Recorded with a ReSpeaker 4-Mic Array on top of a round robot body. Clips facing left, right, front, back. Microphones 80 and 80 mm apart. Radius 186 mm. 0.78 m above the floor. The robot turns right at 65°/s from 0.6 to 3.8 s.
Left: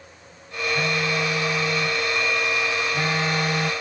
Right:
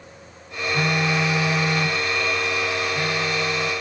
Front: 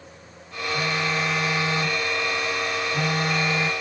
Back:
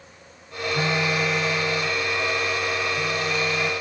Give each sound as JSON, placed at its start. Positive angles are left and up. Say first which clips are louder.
{"t": 0.7, "sound": "a phone buzzing", "louder": "right 3 dB, back 2 dB", "azimuth_deg": -125}